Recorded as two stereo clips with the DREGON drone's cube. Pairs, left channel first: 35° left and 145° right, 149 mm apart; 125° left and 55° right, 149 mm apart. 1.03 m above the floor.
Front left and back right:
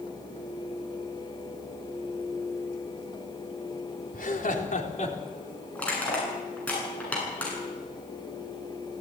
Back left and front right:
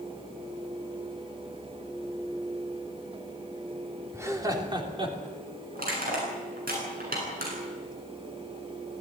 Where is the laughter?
15° left, 3.5 m; by 5.2 s 5° right, 3.5 m.